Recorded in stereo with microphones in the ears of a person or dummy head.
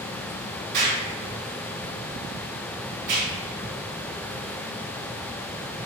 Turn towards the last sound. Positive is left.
turn(degrees=-50)  # may be behind; listen again after turning